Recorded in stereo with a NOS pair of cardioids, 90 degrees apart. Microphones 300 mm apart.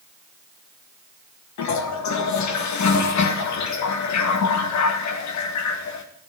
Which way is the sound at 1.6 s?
65° left.